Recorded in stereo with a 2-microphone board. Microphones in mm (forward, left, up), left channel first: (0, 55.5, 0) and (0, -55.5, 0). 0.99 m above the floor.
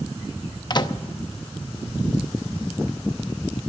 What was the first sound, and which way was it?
A microwave, 40° left (ahead or behind).